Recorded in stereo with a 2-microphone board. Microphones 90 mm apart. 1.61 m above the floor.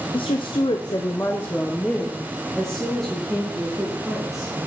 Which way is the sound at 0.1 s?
80° left.